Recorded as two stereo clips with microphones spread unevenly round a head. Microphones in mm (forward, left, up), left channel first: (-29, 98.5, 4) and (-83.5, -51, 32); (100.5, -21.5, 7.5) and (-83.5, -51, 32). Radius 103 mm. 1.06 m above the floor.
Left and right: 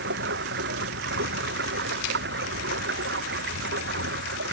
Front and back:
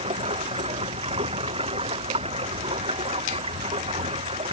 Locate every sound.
0.0 s running water: 110° right